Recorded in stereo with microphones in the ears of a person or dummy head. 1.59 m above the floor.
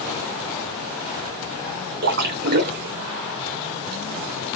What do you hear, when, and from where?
2.0 s a splash: 55° right (ahead or behind), 1.4 m